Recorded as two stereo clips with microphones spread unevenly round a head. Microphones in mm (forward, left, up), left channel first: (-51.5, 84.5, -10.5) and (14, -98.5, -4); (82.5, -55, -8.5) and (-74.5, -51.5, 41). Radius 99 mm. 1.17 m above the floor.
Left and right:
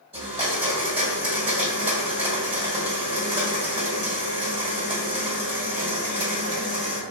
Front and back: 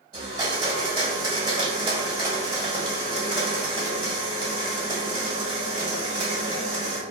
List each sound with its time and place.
0.1 s a blender: 130° right, 1.5 m